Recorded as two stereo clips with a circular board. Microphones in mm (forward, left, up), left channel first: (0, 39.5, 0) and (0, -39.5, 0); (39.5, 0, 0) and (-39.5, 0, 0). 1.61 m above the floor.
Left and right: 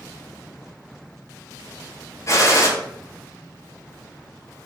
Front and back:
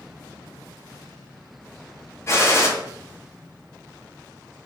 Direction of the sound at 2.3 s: 50° left.